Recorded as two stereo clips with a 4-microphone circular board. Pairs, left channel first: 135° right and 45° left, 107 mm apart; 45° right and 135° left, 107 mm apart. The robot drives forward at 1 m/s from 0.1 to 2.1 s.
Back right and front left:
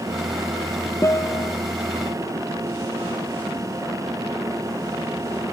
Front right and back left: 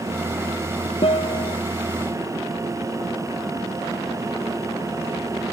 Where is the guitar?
75° right; by 1.6 s 80° right.